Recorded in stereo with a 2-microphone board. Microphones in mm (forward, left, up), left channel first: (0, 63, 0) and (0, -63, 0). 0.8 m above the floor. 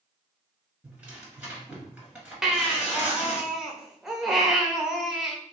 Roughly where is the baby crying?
Centre.